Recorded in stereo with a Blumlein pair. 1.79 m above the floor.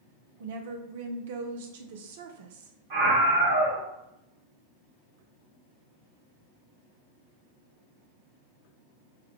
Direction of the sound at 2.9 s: 45° right.